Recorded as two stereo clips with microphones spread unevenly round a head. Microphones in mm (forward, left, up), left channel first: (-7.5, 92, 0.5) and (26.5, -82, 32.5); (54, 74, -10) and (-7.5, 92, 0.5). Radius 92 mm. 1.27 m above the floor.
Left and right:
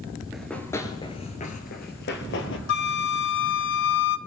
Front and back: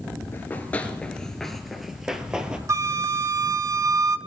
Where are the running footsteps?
20° right, 1.3 m; by 2.6 s 100° left, 1.9 m.